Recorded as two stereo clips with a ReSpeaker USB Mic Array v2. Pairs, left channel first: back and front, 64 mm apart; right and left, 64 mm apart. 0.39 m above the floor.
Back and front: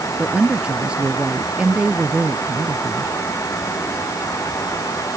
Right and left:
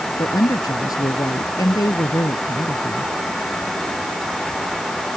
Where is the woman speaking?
75° right.